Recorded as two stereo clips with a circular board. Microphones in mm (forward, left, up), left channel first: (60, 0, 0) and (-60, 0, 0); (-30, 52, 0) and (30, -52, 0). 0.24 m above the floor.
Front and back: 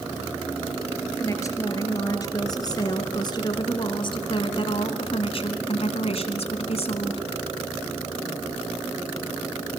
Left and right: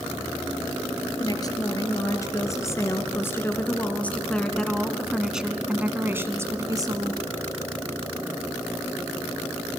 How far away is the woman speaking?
About 4.5 m.